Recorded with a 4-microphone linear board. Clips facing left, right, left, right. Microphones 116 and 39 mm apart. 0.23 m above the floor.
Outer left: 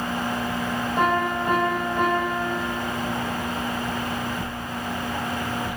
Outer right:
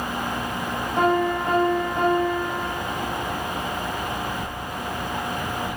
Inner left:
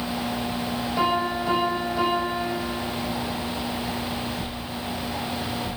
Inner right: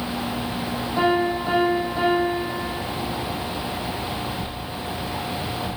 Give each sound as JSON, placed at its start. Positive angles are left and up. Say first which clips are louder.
{"t": 1.0, "sound": "a piano", "louder": "outer right 3 dB, inner right 4 dB", "side_deg": -25, "distance_m": 5.0}